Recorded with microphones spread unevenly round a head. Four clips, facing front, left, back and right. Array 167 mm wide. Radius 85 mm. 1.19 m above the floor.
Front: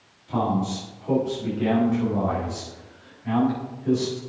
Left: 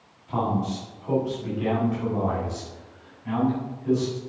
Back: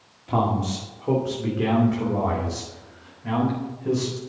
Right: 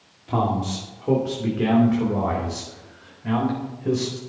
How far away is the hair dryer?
No hair dryer in this recording.